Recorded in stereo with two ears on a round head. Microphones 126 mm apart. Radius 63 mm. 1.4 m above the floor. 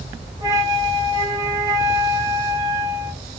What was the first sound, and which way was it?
A flute, 20° right (ahead or behind).